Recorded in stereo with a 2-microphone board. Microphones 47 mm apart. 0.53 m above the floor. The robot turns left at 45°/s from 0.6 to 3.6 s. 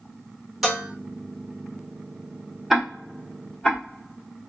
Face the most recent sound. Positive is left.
turn(degrees=20)  # may be behind; listen again after turning